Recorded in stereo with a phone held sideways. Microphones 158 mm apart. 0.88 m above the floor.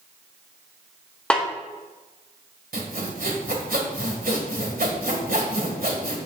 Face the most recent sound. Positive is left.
turn(degrees=-75)  # may be behind; listen again after turning